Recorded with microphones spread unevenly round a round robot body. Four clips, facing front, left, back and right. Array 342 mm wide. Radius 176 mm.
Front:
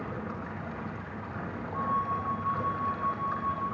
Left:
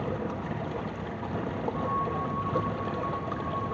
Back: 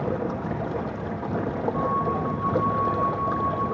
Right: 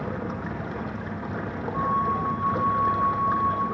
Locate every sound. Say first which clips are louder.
0.0 s running water: right 1 dB, back 10 dB; 175° left, 2.5 m
1.7 s a flute: right 8 dB, back 2 dB; 75° right, 9 m